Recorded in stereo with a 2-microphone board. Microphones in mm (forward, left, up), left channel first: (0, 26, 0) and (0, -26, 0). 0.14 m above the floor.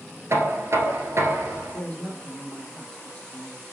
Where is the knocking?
60° right (ahead or behind), 1.4 m.